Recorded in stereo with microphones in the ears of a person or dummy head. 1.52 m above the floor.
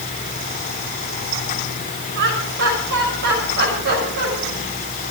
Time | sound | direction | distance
2.1 | laughter | 70° right (ahead or behind) | 7 m